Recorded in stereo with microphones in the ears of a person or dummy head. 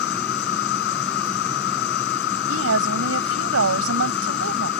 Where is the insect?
55° left (ahead or behind).